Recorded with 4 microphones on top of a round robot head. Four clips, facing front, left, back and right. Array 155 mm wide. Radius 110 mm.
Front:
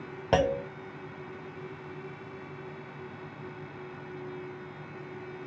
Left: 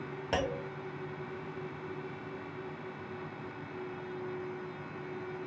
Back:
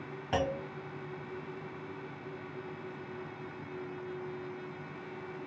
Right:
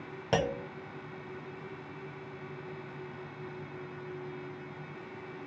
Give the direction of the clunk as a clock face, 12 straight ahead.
12 o'clock.